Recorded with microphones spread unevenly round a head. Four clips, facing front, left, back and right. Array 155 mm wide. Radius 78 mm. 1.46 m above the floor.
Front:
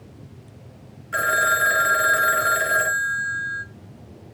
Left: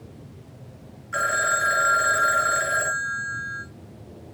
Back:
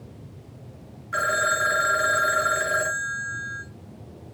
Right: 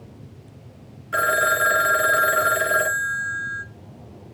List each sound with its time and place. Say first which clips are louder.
1.1 s a phone ringing: right 3 dB, front 3 dB; 80° right, 1.4 m